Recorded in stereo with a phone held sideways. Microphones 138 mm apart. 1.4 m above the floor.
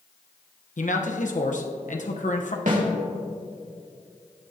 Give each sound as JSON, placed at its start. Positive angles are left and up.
{"t": 0.8, "sound": "a man speaking", "side_deg": 65, "distance_m": 1.0}
{"t": 2.7, "sound": "a snare drum", "side_deg": -65, "distance_m": 2.5}